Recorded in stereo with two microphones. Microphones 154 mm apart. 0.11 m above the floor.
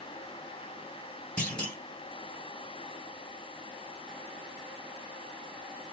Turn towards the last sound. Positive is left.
turn(degrees=10)  # may be behind; listen again after turning